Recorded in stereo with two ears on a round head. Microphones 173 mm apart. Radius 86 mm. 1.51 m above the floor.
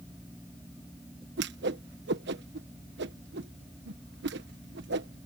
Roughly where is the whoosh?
Right.